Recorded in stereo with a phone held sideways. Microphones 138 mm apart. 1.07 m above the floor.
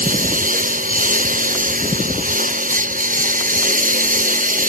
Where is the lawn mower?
65° right (ahead or behind).